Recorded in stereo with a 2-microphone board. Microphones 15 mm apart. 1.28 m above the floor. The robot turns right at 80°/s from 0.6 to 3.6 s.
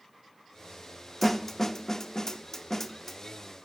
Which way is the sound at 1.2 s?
5° left (ahead or behind).